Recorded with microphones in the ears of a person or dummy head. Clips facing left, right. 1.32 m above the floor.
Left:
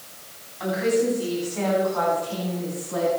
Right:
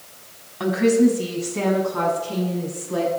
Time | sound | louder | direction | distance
0.6 | a woman speaking | right 5 dB | 65° right (ahead or behind) | 3.5 m